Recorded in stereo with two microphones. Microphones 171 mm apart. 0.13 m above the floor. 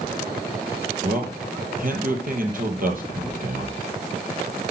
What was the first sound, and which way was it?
A man speaking, 55° right (ahead or behind).